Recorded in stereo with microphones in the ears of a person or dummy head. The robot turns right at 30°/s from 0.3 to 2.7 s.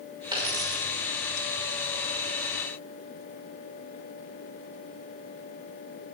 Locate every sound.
0.3 s a dropped coin: 20° right (ahead or behind), 2 m; by 0.9 s 35° right (ahead or behind), 2 m